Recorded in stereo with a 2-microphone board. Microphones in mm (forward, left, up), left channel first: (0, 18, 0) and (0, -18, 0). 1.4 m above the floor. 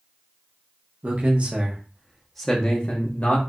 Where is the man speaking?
45° right (ahead or behind), 1.1 m; by 3.4 s 40° left (ahead or behind), 1.0 m.